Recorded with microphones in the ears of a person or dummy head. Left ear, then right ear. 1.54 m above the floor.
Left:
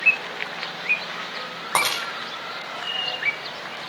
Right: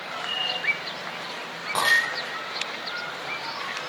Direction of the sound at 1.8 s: 40° left (ahead or behind).